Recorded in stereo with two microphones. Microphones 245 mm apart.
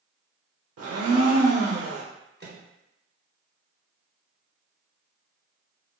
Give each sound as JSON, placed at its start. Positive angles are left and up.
{"t": 0.8, "sound": "a blender", "side_deg": -75, "distance_m": 0.5}
{"t": 2.4, "sound": "a microwave", "side_deg": -45, "distance_m": 0.7}